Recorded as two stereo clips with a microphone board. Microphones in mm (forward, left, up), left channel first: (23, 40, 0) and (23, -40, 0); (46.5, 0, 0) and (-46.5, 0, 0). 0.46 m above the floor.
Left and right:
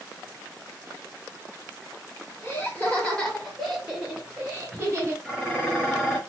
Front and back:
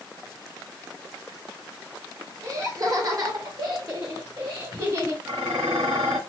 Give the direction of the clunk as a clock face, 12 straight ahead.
No clunk in this recording.